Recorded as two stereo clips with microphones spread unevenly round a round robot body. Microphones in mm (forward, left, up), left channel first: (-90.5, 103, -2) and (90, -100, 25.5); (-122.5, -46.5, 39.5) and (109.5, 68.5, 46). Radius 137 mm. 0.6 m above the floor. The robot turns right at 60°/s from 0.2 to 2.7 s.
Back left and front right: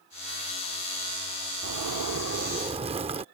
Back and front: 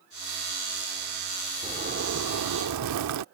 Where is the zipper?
40° right; by 3.2 s 25° left.